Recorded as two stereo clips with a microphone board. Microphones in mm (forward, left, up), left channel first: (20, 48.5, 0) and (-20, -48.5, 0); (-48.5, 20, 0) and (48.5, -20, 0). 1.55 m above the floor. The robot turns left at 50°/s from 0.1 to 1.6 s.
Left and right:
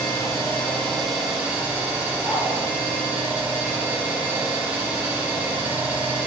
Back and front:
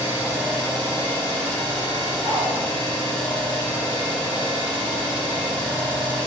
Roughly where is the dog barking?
Right.